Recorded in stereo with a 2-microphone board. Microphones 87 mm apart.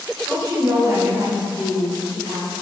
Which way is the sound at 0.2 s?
30° right (ahead or behind).